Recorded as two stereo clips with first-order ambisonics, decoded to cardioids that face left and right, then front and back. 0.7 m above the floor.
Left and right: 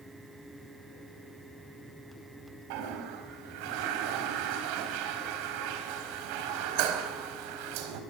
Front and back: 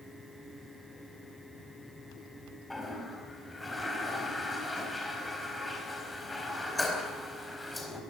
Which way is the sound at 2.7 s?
85° right.